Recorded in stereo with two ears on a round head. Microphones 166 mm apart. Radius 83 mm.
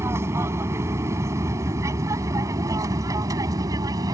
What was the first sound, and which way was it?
An aircraft, 15° right (ahead or behind).